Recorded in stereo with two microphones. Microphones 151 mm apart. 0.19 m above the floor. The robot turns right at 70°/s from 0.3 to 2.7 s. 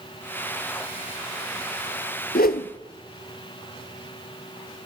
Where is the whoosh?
80° left, 0.7 m; by 2.7 s 75° left (ahead or behind), 0.7 m.